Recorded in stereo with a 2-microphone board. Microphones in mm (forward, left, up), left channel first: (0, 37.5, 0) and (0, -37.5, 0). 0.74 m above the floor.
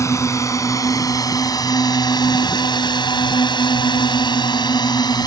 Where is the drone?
40° left (ahead or behind); by 5.3 s 60° left (ahead or behind).